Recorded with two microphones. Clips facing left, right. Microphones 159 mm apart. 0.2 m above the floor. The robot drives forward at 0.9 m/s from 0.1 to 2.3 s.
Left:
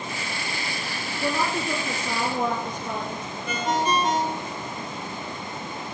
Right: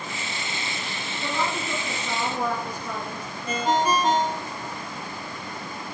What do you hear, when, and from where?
1.2 s a woman speaking: 25° left (ahead or behind), 2.5 m; by 3.2 s 20° left (ahead or behind), 3.5 m
3.5 s a ringtone: 35° right (ahead or behind), 1.0 m